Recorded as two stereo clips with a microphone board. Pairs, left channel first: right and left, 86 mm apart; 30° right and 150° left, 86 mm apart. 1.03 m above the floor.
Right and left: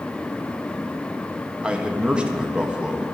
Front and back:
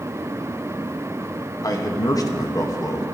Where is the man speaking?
10° left, 1.0 m.